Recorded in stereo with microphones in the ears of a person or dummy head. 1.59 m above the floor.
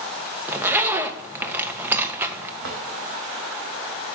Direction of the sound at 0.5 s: 10° right (ahead or behind).